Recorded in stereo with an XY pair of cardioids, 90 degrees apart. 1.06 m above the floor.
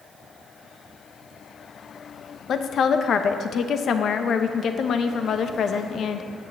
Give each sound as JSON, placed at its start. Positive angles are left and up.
{"t": 2.5, "sound": "a woman speaking", "azimuth_deg": 65, "distance_m": 0.8}